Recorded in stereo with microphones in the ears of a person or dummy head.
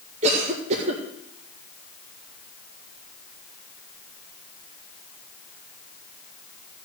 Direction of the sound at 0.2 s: 35° right (ahead or behind).